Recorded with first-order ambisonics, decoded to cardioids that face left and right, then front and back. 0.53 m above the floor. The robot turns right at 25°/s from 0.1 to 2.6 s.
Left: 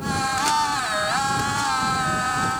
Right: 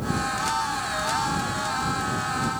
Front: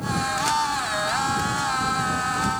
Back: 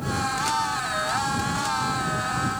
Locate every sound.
Only background noise.